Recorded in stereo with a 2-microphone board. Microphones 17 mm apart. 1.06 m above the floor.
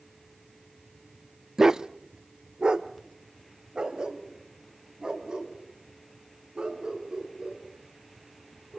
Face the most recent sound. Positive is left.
turn(degrees=-60)  # may be behind; listen again after turning